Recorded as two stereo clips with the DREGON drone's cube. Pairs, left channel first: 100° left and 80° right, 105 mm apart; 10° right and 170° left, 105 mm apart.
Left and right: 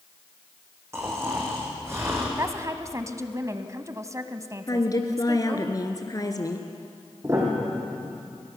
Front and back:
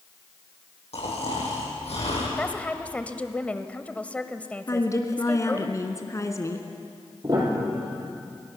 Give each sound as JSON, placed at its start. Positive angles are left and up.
{"t": 0.9, "sound": "snoring", "azimuth_deg": -15, "distance_m": 7.5}
{"t": 2.4, "sound": "a woman speaking", "azimuth_deg": -75, "distance_m": 1.3}
{"t": 4.7, "sound": "a woman speaking", "azimuth_deg": 50, "distance_m": 2.5}
{"t": 7.2, "sound": "a piano", "azimuth_deg": -140, "distance_m": 5.5}